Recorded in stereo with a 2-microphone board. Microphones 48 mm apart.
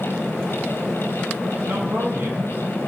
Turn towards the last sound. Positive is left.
turn(degrees=-50)  # may be behind; listen again after turning